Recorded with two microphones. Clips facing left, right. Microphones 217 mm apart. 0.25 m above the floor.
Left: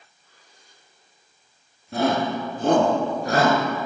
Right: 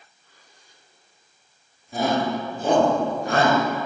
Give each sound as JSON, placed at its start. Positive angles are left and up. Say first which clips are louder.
{"t": 1.9, "sound": "a shout", "louder": "left 1 dB", "side_deg": 70, "distance_m": 3.0}